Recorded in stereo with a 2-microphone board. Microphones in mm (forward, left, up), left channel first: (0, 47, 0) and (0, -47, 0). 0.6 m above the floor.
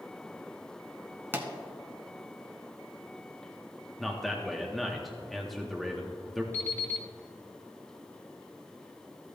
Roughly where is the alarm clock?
Left.